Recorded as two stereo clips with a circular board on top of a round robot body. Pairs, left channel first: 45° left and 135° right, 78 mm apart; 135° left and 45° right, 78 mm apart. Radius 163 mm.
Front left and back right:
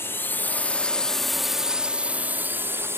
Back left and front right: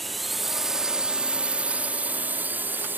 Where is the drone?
45° left; by 3.0 s 95° right.